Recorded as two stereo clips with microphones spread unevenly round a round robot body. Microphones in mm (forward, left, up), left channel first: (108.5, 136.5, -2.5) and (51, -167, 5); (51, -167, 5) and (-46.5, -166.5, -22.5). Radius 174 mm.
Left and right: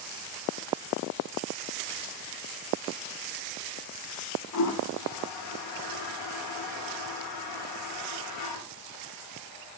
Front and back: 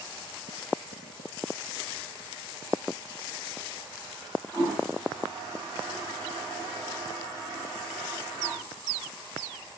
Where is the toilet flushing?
90° left, 0.7 m.